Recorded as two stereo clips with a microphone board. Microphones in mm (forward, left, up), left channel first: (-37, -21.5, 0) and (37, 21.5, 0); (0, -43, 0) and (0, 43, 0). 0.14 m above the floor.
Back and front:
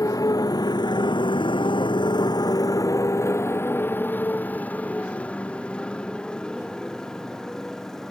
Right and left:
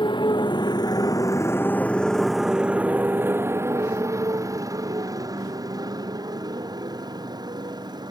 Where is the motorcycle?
105° right; by 8.1 s 125° left.